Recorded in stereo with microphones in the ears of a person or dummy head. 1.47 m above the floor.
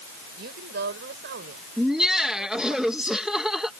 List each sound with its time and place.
0.4 s a woman speaking: 65° right (ahead or behind)
1.8 s laughter: 5° left (ahead or behind)